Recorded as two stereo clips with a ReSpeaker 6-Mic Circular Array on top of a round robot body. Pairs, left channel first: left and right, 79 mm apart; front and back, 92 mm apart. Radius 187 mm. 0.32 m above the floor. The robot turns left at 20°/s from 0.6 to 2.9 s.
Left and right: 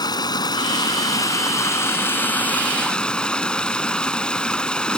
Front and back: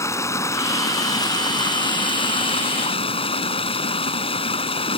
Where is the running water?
60° left; by 5.0 s 10° left.